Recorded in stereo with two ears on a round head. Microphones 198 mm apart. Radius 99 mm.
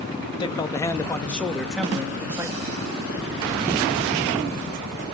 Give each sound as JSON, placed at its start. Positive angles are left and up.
{"t": 0.4, "sound": "a man speaking", "side_deg": 20, "distance_m": 2.5}